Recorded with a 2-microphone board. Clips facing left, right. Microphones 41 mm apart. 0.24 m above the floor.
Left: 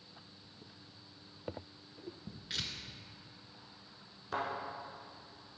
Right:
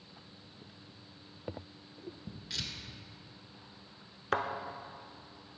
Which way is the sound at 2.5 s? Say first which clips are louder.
Even; 25° left (ahead or behind).